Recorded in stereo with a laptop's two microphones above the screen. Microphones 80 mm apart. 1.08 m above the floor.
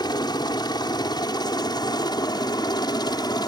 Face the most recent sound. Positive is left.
turn(degrees=60)  # may be behind; listen again after turning